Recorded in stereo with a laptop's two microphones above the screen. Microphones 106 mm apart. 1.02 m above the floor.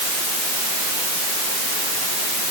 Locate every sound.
Only background noise.